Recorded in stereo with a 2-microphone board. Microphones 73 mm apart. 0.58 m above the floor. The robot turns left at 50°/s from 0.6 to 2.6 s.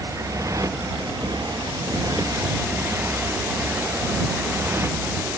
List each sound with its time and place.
0.0 s a motorcycle: 45° right; by 5.4 s 145° right